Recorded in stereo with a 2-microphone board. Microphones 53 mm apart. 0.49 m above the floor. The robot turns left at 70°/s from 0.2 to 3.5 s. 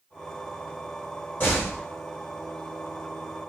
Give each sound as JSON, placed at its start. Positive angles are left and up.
{"t": 1.4, "sound": "a door slam", "side_deg": 35, "distance_m": 1.8}